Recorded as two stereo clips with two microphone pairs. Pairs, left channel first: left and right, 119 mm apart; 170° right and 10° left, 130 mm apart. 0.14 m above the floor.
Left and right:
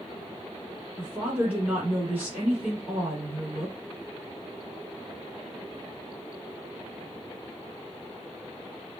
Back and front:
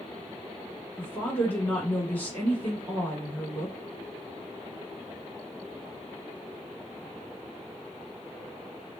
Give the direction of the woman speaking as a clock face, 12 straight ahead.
4 o'clock.